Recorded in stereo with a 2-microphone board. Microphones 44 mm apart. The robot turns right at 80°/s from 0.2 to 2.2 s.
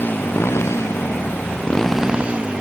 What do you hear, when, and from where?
0.0 s a motorcycle: 40° left; by 2.6 s 160° right